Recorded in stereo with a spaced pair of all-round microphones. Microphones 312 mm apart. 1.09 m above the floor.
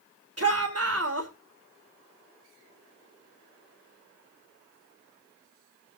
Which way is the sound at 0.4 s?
50° right (ahead or behind).